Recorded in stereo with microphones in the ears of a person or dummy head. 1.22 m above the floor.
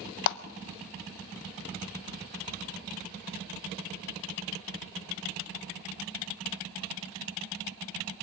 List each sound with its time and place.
0.3 s a clap: 60° left (ahead or behind), 0.5 m